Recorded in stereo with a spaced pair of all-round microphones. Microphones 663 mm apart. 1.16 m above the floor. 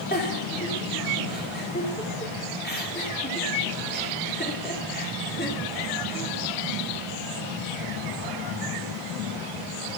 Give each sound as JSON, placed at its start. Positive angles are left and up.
{"t": 0.1, "sound": "a giggle", "side_deg": 15, "distance_m": 2.5}